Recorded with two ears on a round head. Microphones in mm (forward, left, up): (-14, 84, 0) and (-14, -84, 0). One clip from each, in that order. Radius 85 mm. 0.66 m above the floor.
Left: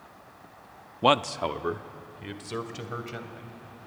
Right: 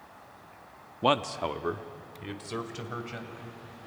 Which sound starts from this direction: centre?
A man speaking, at 1.0 s.